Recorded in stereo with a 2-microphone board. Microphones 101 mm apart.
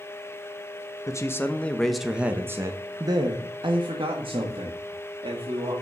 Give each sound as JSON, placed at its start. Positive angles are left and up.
{"t": 1.1, "sound": "a man speaking", "side_deg": 30, "distance_m": 1.0}